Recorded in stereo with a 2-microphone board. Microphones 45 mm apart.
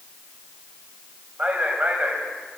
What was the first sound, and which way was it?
A man speaking, 30° right (ahead or behind).